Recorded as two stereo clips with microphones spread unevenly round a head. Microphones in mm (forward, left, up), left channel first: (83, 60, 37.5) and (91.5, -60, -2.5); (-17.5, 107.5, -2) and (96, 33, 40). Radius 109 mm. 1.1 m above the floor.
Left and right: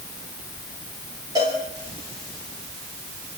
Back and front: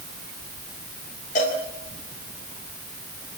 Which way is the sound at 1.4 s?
155° right.